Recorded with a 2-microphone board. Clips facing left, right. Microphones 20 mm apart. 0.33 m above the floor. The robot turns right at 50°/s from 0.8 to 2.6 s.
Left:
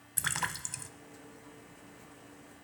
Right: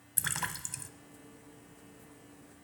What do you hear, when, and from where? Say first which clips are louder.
0.2 s a splash: left 2 dB; 10° left (ahead or behind), 0.6 m; by 0.9 s 15° left (ahead or behind), 0.6 m